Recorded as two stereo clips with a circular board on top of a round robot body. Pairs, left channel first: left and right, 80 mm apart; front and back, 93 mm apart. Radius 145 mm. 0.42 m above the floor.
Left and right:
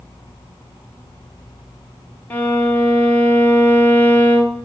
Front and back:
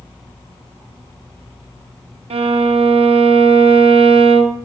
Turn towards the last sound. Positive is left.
turn(degrees=160)